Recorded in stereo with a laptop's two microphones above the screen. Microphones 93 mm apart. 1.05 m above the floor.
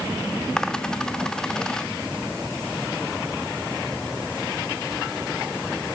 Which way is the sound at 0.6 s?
10° left (ahead or behind).